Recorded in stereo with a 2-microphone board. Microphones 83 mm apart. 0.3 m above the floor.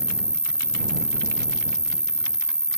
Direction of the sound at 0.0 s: 10° right (ahead or behind).